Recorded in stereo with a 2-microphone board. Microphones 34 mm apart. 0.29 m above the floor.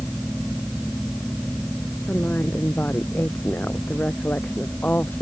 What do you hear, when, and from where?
2.1 s a woman speaking: 55° left (ahead or behind)